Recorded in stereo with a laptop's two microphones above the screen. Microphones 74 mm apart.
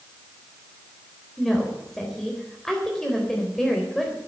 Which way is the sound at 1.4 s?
5° left (ahead or behind).